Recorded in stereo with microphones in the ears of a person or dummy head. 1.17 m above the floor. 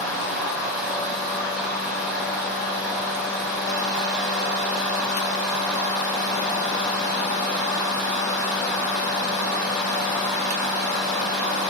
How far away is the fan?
About 1.2 m.